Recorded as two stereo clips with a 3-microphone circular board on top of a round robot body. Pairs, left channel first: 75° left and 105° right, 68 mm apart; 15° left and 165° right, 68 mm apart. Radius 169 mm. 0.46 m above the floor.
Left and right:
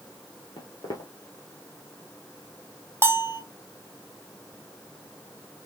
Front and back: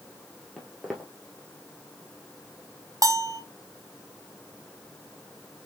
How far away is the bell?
About 1.0 m.